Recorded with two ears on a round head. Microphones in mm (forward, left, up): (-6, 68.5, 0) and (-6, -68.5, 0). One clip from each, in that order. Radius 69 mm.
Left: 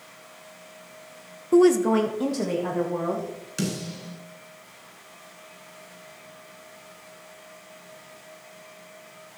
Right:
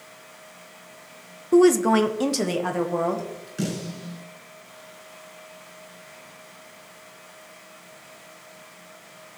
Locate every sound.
1.5 s a woman speaking: 5° left (ahead or behind), 0.6 m; by 3.5 s 65° right (ahead or behind), 2.5 m
3.6 s a snare drum: 70° left (ahead or behind), 7 m